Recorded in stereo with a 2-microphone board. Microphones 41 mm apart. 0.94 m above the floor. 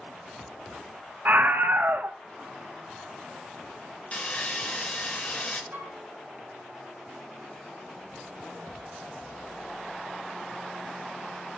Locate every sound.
1.2 s a scream: 55° right (ahead or behind), 0.7 m
4.1 s sawing: 35° left (ahead or behind), 1.0 m
5.7 s a flute: 30° right (ahead or behind), 5 m